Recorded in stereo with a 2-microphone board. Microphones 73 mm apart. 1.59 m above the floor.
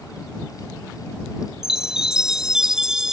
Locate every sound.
1.6 s a chime: 10° right (ahead or behind)